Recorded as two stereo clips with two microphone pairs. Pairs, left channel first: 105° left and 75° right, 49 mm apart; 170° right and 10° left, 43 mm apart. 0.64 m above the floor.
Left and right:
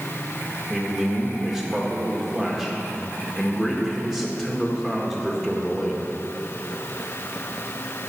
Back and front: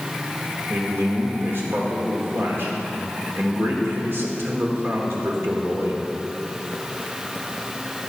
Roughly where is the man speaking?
Ahead.